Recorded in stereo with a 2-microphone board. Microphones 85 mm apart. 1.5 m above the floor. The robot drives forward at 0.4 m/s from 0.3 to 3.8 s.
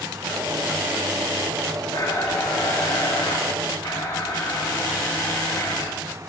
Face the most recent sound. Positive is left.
turn(degrees=75)  # may be behind; listen again after turning